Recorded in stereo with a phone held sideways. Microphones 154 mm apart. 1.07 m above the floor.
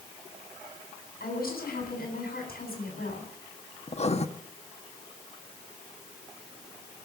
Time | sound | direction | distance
1.2 | a woman speaking | 75° left (ahead or behind) | 8.5 m
3.9 | writing | 45° left (ahead or behind) | 1.0 m